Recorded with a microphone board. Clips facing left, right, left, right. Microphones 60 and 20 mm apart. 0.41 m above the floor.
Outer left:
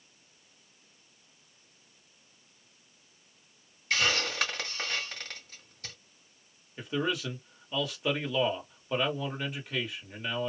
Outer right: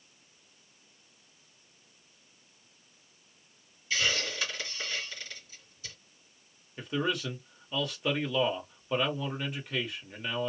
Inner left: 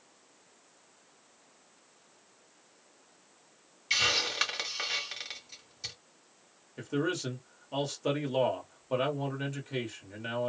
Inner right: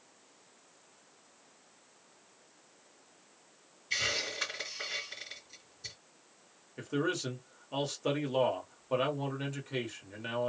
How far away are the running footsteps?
I don't hear running footsteps.